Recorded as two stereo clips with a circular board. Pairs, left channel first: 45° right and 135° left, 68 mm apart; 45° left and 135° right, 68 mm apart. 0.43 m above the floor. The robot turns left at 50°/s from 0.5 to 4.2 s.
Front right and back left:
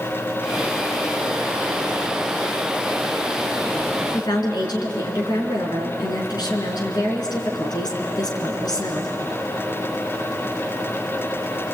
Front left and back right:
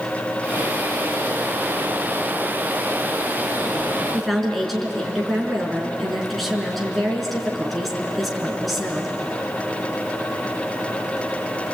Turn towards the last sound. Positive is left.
turn(degrees=-45)